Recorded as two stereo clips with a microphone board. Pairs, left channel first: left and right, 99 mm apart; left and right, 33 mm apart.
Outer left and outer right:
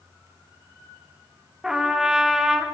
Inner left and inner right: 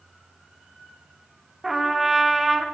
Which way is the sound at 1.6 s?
5° right (ahead or behind).